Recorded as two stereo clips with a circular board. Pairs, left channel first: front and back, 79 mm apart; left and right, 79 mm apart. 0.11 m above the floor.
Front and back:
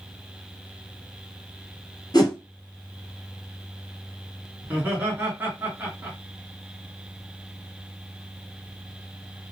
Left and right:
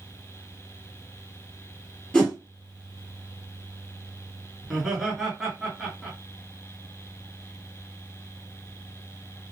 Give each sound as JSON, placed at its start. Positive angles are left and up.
{"t": 2.1, "sound": "a whoosh", "azimuth_deg": 5, "distance_m": 1.3}
{"t": 4.6, "sound": "laughter", "azimuth_deg": -175, "distance_m": 1.2}